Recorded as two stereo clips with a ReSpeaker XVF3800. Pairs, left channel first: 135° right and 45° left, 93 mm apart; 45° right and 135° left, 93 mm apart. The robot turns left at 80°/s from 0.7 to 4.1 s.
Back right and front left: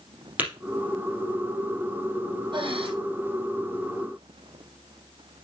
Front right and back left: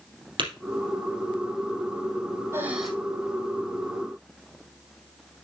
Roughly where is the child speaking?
I don't hear a child speaking.